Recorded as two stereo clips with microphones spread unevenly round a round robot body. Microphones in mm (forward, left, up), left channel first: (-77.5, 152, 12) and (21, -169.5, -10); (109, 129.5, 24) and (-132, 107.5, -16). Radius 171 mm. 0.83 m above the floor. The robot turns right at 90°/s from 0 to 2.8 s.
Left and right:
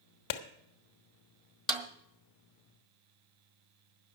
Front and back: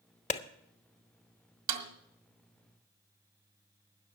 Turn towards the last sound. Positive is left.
turn(degrees=-65)